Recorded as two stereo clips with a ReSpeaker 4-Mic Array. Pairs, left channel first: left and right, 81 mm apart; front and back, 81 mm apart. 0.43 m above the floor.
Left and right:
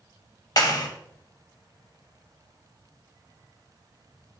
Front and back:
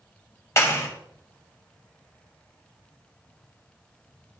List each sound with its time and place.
0.6 s a clap: 50° left, 1.8 m